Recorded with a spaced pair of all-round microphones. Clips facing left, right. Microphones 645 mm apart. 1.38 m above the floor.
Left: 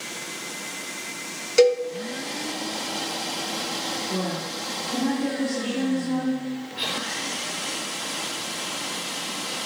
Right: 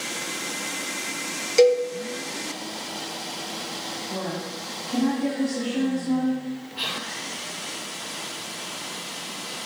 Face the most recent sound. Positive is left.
turn(degrees=-40)  # may be behind; listen again after turning